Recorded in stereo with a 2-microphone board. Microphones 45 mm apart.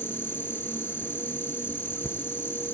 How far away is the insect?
About 2 m.